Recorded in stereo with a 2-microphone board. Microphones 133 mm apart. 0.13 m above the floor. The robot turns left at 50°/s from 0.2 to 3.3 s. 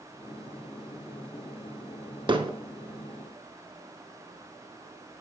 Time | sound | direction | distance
2.3 | hammering | 40° right (ahead or behind) | 0.6 m